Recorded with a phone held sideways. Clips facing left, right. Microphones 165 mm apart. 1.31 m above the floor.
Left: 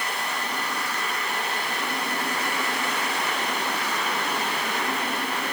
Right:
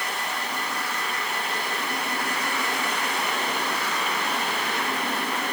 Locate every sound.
Only background noise.